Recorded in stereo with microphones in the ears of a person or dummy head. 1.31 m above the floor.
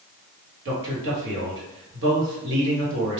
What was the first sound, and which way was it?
A man speaking, 65° right (ahead or behind).